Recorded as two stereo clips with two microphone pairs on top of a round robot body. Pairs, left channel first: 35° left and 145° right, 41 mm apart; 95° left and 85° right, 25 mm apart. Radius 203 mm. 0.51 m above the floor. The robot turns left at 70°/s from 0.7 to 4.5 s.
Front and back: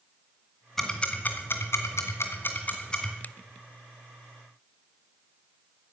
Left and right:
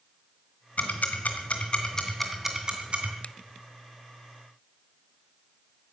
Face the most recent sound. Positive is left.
turn(degrees=-15)